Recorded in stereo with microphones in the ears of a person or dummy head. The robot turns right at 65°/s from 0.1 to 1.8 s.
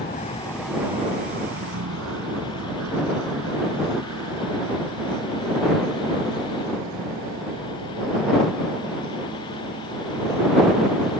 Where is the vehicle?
40° left (ahead or behind); by 11.2 s 85° right.